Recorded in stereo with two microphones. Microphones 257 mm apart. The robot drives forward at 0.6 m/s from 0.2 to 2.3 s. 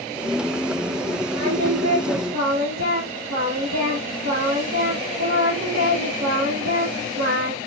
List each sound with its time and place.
1.3 s singing: 75° right (ahead or behind), 4.5 m; by 7.6 s 85° right, 4.5 m